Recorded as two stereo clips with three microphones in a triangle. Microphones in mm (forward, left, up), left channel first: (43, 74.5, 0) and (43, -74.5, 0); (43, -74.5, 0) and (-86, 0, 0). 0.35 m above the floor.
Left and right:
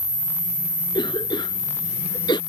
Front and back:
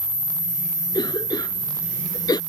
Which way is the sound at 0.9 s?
30° left.